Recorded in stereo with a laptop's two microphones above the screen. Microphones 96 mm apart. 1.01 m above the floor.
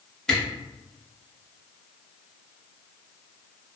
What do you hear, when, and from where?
0.3 s a camera shutter: 10° left (ahead or behind), 0.8 m